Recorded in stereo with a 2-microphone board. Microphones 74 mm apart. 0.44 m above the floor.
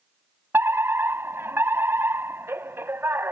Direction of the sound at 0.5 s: 30° right (ahead or behind).